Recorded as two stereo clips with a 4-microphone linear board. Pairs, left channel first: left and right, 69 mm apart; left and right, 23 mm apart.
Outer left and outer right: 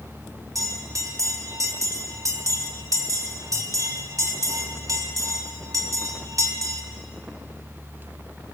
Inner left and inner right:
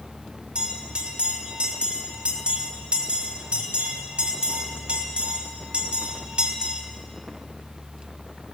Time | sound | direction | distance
0.6 | a bell | 60° right (ahead or behind) | 2.5 m